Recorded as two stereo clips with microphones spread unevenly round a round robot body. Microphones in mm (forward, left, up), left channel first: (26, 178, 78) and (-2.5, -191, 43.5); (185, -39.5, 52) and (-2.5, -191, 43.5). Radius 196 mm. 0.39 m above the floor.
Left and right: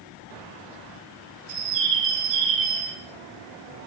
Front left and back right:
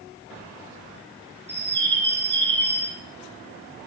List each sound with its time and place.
1.5 s a bird: 95° right, 2.5 m